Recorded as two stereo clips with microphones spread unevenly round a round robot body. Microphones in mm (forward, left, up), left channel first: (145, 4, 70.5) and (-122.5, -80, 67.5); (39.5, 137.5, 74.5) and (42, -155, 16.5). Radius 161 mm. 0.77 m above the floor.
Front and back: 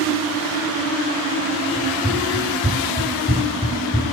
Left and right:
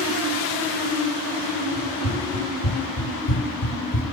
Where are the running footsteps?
110° left, 6 m; by 4.0 s 100° left, 3.5 m.